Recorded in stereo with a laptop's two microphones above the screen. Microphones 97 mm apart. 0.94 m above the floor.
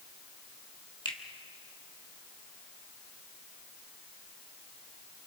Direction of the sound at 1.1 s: 60° left (ahead or behind).